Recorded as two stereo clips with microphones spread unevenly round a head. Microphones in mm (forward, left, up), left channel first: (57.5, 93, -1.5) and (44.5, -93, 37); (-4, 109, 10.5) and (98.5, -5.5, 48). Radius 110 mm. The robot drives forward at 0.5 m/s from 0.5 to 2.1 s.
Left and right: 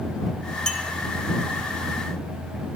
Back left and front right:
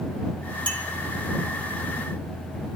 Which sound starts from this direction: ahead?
A clink, at 0.7 s.